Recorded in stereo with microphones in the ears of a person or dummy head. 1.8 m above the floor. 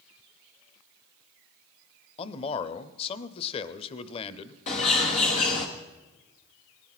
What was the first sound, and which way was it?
A man speaking, 30° left (ahead or behind).